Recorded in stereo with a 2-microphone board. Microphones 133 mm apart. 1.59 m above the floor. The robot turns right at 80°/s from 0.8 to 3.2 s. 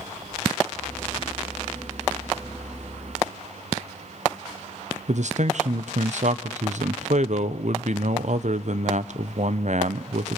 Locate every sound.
5.1 s a man speaking: 60° right (ahead or behind), 0.8 m